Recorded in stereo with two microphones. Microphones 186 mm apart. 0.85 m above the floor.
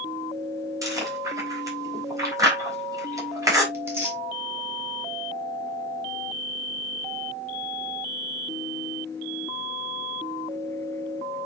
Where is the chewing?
15° right (ahead or behind), 4 m.